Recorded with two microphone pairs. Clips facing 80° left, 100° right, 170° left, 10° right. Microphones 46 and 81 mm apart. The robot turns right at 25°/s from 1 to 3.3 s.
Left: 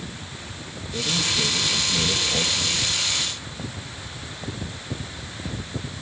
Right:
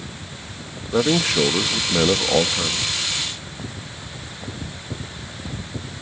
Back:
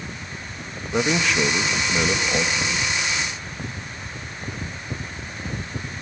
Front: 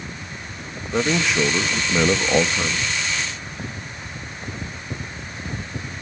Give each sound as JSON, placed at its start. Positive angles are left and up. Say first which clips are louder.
{"t": 0.9, "sound": "a man speaking", "louder": "right 7 dB, front 1 dB", "azimuth_deg": -100, "distance_m": 0.8}